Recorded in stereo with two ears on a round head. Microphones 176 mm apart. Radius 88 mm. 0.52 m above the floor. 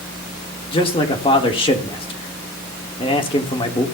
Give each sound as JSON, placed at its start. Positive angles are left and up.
{"t": 0.7, "sound": "a man speaking", "side_deg": 25, "distance_m": 1.6}